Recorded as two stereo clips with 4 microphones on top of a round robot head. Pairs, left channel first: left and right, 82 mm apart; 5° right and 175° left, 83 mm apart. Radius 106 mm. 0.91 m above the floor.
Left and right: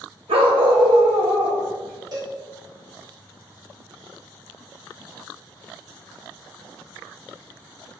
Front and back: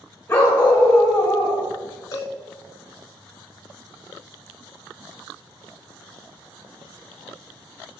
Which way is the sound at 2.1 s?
55° right.